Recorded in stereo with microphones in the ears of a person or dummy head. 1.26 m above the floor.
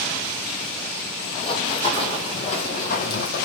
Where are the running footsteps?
30° left (ahead or behind), 1.8 m; by 3.5 s 55° left (ahead or behind), 2 m.